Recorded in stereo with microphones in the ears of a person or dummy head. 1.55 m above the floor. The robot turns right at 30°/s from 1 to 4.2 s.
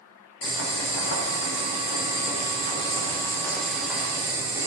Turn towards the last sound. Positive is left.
turn(degrees=-170)